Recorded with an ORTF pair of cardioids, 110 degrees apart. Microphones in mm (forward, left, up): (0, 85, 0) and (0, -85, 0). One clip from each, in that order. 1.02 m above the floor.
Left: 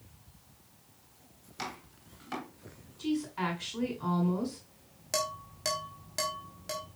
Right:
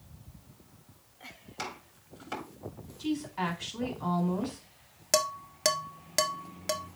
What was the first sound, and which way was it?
Chopping, 15° right.